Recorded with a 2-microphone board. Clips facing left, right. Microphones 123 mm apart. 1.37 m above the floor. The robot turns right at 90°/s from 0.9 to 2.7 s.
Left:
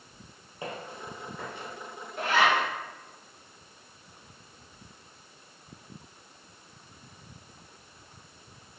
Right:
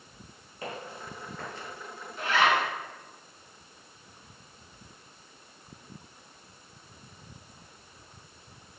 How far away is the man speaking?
I don't hear a man speaking.